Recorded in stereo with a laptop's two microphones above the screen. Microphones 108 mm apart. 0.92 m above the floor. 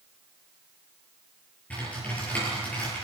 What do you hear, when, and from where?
1.7 s typing on a keyboard: 15° left (ahead or behind), 9 m